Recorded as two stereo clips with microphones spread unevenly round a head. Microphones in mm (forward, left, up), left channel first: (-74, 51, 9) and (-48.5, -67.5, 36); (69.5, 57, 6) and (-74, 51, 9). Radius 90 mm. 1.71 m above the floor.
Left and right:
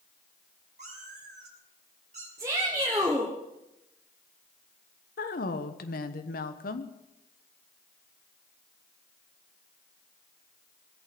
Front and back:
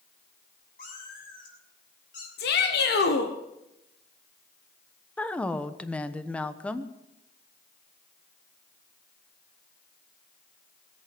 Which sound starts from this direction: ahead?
A shout, at 2.4 s.